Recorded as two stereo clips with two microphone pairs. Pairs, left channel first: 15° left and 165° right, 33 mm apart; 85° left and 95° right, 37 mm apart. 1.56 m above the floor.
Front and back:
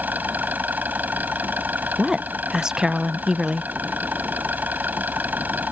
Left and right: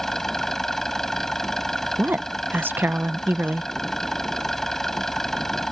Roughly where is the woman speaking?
Right.